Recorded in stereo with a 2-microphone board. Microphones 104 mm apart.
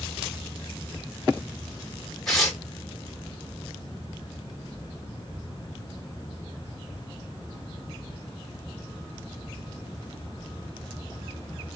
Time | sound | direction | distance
2.3 | tearing paper | 5° left (ahead or behind) | 2.5 m